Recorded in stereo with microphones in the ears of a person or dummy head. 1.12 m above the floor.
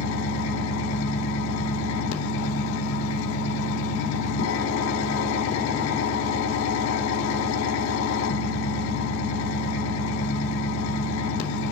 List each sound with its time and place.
0.0 s an engine running: 85° left, 2 m